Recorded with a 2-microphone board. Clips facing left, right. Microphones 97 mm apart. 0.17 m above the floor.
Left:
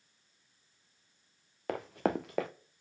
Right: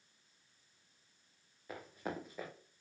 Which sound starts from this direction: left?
Running footsteps, at 1.7 s.